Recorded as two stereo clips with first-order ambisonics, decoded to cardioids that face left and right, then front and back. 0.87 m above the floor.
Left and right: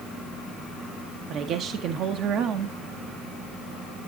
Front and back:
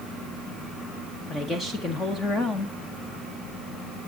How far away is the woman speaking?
About 0.9 m.